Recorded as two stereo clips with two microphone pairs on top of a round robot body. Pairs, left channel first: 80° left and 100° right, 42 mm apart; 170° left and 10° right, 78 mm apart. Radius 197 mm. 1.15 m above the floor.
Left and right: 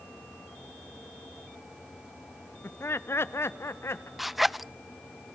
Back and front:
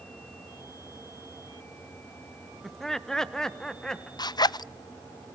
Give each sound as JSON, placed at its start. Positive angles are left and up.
{"t": 2.6, "sound": "laughter", "azimuth_deg": 85, "distance_m": 0.7}
{"t": 4.2, "sound": "a zipper", "azimuth_deg": 170, "distance_m": 0.5}